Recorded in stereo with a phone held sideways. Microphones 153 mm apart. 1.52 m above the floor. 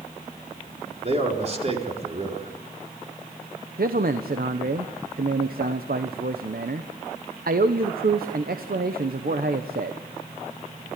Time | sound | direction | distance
1.0 | a man speaking | 45° right (ahead or behind) | 4 m
3.8 | a man speaking | 75° right (ahead or behind) | 1.1 m